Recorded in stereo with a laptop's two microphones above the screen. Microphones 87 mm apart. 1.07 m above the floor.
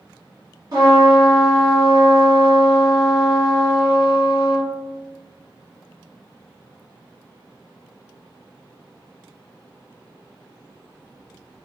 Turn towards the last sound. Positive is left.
turn(degrees=-50)  # may be behind; listen again after turning